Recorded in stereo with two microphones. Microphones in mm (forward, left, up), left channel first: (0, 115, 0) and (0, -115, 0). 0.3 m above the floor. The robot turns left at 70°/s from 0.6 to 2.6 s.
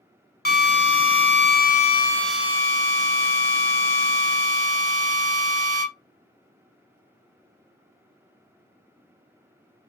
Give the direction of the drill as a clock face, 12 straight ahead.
8 o'clock.